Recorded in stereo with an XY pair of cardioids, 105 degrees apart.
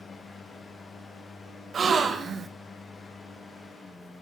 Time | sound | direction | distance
0.0 | a fan | 30° left | 1.4 m
1.7 | a gasp | 45° right | 0.8 m